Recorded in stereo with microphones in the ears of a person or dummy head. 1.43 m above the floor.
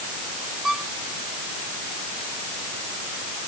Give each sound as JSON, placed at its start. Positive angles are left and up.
{"t": 0.6, "sound": "a violin", "side_deg": -5}